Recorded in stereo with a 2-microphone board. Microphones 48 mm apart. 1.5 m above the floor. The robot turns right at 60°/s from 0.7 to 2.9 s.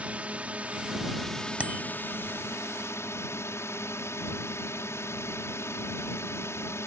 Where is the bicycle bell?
25° right (ahead or behind); by 1.9 s 45° right (ahead or behind).